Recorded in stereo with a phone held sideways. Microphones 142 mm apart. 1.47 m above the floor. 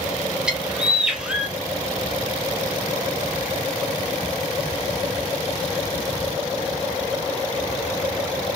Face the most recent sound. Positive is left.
turn(degrees=-5)  # may be behind; listen again after turning